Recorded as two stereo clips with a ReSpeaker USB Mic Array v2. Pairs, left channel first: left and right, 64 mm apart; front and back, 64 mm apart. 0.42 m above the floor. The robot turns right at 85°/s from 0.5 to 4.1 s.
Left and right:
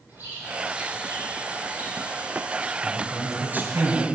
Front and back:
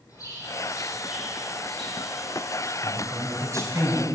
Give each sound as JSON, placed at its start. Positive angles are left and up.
{"t": 0.1, "sound": "a bird", "azimuth_deg": -30, "distance_m": 7.0}
{"t": 2.8, "sound": "a man speaking", "azimuth_deg": 150, "distance_m": 2.5}